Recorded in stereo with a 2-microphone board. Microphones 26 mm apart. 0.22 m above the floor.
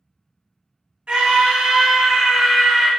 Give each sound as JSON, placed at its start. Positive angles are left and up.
{"t": 1.1, "sound": "a scream", "side_deg": -40, "distance_m": 1.6}